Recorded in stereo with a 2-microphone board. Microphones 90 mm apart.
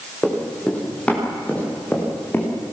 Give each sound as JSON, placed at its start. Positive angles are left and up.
{"t": 0.2, "sound": "running footsteps", "side_deg": 10, "distance_m": 8.5}